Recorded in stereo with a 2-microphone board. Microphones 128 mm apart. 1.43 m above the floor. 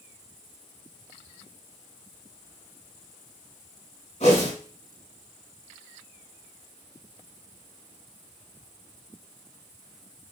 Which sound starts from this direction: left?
A whoosh, at 4.2 s.